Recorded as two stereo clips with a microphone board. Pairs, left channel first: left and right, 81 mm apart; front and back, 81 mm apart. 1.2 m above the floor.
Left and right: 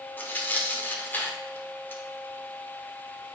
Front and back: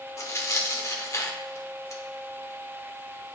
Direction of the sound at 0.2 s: 30° left.